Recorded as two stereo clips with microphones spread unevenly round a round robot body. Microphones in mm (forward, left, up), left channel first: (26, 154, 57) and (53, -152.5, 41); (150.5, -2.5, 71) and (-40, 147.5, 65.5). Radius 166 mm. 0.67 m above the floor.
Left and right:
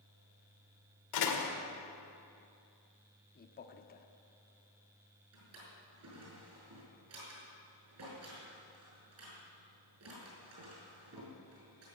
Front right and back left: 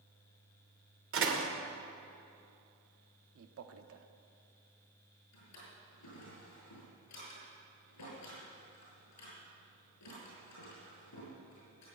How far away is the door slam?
About 2 m.